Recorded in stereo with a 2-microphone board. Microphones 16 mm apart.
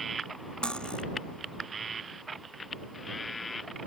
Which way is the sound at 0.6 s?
75° left (ahead or behind).